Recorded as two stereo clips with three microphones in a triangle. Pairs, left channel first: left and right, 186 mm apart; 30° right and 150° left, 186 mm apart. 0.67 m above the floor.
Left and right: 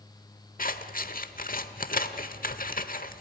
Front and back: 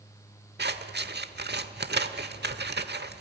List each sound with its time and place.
0.6 s scissors: 125° left, 1.0 m